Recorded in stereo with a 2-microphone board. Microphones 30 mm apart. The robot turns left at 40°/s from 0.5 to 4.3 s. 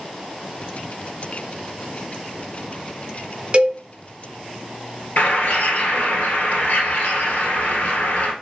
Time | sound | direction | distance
3.5 | a cowbell | 35° right (ahead or behind) | 0.9 m
5.2 | a bird | 60° left (ahead or behind) | 1.5 m